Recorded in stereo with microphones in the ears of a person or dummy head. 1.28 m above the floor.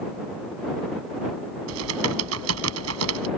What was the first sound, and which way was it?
Typing on a keyboard, 85° right.